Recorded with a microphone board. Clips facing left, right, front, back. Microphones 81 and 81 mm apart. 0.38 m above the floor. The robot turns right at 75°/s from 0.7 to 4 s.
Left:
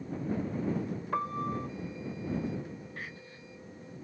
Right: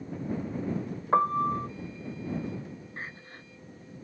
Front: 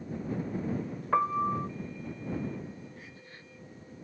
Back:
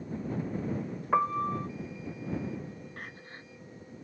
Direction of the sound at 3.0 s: 155° right.